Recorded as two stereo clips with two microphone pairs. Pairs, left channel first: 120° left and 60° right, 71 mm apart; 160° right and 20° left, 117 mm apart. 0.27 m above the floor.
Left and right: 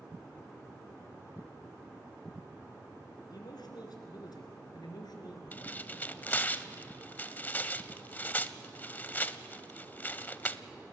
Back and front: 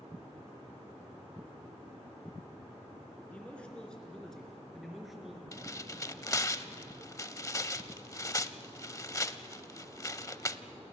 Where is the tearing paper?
155° left, 0.5 m.